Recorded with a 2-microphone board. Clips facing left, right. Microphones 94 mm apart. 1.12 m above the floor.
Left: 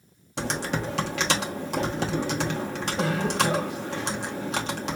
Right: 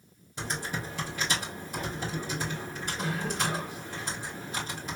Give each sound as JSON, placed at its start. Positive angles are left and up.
{"t": 0.4, "sound": "typing on a keyboard", "side_deg": 70, "distance_m": 1.0}